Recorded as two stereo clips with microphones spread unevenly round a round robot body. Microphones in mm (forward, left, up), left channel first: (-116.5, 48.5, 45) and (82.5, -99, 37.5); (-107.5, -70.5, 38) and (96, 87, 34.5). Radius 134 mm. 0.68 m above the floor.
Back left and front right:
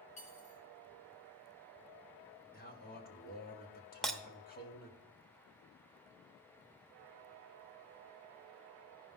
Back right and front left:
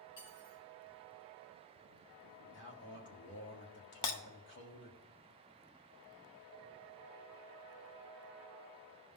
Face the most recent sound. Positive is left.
turn(degrees=-130)